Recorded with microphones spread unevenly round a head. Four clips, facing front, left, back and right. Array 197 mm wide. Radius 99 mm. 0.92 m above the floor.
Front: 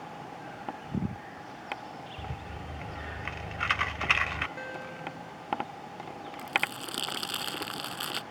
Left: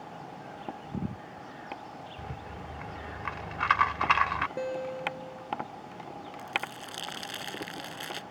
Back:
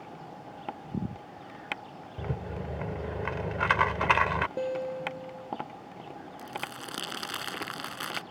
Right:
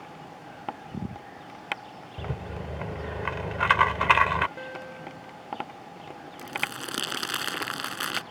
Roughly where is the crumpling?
Right.